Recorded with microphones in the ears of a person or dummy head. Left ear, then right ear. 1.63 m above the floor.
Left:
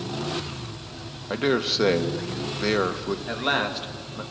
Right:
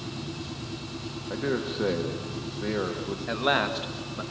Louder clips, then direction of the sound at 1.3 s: Left 7 dB; 75° left (ahead or behind).